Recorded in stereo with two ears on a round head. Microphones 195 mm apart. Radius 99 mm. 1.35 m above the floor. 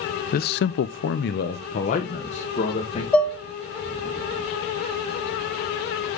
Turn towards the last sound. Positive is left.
turn(degrees=5)  # may be behind; listen again after turning